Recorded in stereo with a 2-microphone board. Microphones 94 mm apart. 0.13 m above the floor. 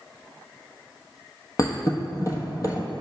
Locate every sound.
1.6 s a thud: 40° left (ahead or behind), 1.0 m